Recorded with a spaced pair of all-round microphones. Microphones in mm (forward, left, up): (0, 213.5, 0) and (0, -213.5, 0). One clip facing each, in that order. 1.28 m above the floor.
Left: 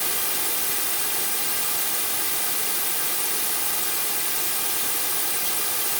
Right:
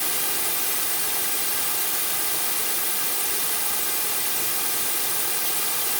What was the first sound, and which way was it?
Only background noise.